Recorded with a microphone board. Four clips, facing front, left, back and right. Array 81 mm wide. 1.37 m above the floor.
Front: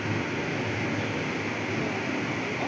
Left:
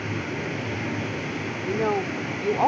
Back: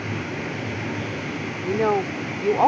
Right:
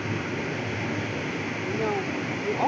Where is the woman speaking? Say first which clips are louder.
Left 4 dB, back 8 dB; 160° left.